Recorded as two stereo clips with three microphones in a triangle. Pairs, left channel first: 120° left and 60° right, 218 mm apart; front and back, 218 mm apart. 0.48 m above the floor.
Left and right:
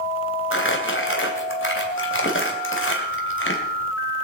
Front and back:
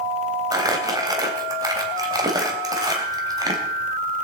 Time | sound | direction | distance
0.5 | crumpling | 110° left | 3 m